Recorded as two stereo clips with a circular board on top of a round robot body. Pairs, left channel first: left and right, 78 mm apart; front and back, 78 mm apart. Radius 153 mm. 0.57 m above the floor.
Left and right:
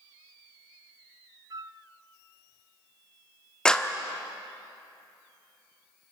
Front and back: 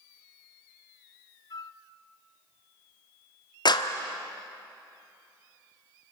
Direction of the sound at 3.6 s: 10° left.